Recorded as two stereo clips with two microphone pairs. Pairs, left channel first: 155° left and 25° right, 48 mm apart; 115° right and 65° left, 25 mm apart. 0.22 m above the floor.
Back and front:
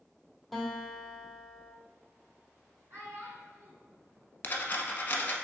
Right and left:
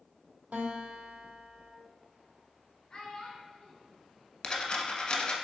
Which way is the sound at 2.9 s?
65° right.